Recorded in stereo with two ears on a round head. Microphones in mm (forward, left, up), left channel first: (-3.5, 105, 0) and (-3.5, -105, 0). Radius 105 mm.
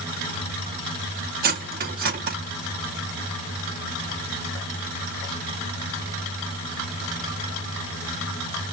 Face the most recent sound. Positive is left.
turn(degrees=-40)  # may be behind; listen again after turning